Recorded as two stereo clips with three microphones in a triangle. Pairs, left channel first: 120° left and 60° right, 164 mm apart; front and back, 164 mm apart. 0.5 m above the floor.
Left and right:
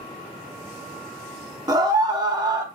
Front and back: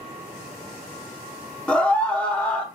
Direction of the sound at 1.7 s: 75° right.